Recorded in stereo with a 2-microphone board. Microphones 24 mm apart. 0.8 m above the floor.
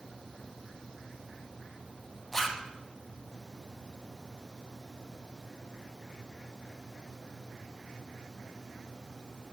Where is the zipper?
10° left (ahead or behind), 0.7 m.